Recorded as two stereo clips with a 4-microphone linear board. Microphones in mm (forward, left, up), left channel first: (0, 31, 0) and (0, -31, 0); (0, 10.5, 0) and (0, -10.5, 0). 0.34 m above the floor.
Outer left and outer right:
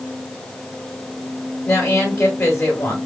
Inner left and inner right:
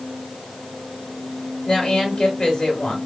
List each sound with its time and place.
1.6 s a woman speaking: 40° left (ahead or behind), 1.8 m